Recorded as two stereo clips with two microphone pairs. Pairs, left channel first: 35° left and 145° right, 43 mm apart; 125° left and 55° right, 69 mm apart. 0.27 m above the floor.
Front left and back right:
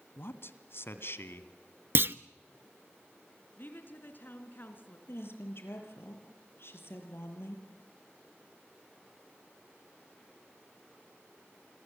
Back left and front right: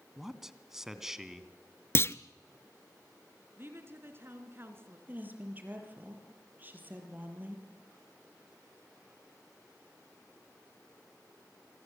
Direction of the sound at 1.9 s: Straight behind.